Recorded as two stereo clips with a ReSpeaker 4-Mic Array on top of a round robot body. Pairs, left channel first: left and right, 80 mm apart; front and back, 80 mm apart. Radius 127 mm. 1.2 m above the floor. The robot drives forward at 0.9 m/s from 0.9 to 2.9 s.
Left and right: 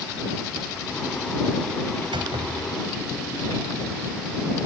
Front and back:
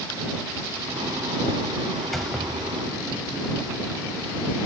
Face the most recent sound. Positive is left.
turn(degrees=-95)